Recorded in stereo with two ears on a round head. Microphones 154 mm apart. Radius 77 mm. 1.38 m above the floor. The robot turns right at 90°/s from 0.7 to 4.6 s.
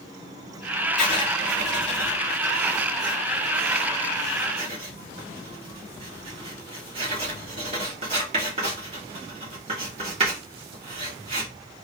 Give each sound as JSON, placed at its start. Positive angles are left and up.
{"t": 1.0, "sound": "writing", "side_deg": 0, "distance_m": 2.0}